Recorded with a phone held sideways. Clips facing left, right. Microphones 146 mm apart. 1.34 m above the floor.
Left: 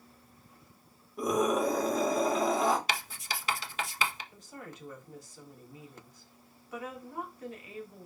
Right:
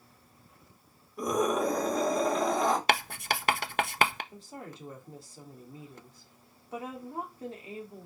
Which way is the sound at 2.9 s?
60° right (ahead or behind).